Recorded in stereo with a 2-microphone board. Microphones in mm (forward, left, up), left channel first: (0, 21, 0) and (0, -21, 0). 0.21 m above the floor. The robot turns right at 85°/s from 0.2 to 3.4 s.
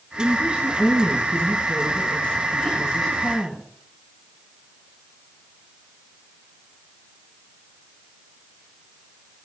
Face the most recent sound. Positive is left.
turn(degrees=-160)